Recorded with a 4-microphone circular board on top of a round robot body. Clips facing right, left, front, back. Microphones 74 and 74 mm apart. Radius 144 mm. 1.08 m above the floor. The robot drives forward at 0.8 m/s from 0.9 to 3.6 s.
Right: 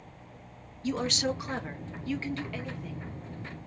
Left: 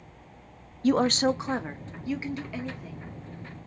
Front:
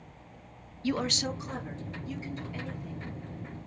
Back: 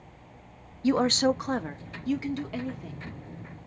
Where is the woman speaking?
115° left, 0.5 m; by 3.1 s 170° left, 2.0 m.